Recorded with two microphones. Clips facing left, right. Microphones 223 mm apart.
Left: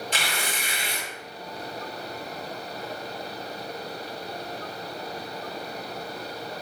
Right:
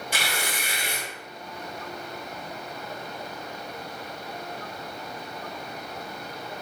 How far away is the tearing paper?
About 1.5 m.